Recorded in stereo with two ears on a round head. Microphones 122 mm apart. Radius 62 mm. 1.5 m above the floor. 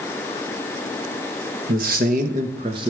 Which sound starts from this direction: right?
A man speaking, at 1.7 s.